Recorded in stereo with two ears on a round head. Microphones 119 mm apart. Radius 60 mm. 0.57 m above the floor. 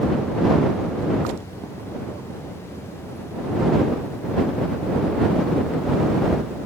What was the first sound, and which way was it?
Only background noise.